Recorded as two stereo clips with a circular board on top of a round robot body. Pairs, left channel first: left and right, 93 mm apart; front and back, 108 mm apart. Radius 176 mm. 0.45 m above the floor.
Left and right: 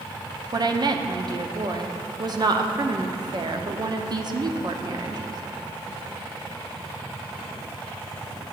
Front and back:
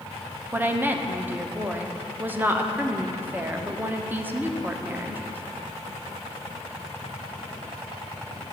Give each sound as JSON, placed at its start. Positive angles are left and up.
{"t": 0.5, "sound": "a woman speaking", "azimuth_deg": -115, "distance_m": 1.0}